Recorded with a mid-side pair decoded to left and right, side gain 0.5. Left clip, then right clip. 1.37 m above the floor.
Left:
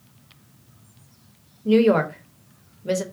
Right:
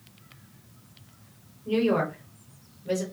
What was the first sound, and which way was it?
A woman speaking, 60° left.